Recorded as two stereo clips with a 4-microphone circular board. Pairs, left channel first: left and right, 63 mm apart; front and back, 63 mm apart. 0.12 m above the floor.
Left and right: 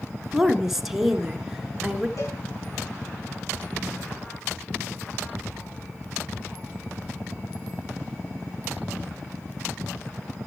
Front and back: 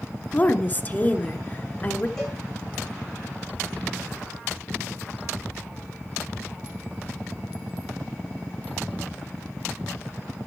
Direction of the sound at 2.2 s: 80° left.